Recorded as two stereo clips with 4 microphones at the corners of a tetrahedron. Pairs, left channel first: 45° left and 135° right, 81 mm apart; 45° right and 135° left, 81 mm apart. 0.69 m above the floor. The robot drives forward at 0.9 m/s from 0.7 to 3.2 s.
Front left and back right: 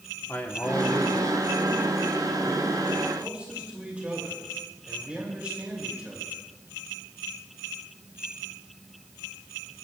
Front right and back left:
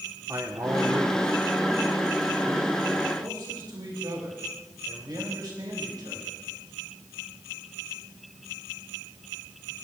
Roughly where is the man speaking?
Left.